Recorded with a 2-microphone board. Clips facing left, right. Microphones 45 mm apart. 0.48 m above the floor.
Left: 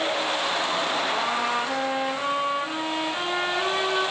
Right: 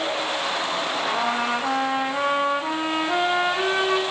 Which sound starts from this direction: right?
A trumpet, at 1.0 s.